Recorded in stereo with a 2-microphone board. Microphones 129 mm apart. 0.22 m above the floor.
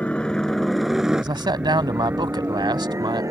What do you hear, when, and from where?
0.0 s a helicopter: 10° left (ahead or behind); by 3.3 s 25° right (ahead or behind)
1.2 s a man speaking: 35° right (ahead or behind)